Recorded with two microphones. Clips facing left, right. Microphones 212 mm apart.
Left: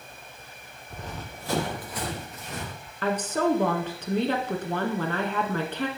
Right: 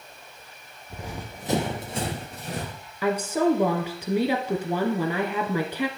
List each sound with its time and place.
0.9 s running footsteps: 5° right (ahead or behind), 1.7 m; by 2.7 s 35° right (ahead or behind), 3 m
3.0 s a woman speaking: 10° right (ahead or behind), 1.1 m